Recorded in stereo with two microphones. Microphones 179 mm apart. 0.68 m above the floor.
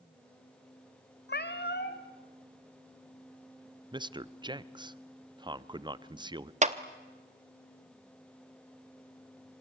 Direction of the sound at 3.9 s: 25° right (ahead or behind).